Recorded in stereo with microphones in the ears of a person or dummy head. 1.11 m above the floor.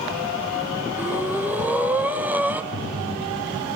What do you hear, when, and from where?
1.0 s breathing: 5° right (ahead or behind), 0.8 m
2.7 s breathing: 45° left (ahead or behind), 6 m